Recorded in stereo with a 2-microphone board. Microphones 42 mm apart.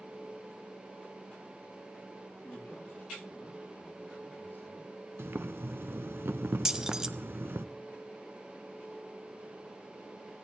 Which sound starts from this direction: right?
Boiling, at 5.2 s.